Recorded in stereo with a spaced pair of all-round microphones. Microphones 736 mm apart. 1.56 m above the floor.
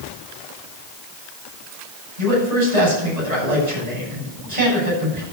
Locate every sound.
2.2 s a man speaking: 65° right (ahead or behind), 8 m